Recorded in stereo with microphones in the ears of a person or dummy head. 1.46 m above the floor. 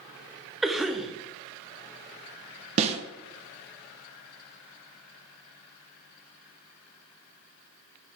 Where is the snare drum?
35° right (ahead or behind), 0.8 m.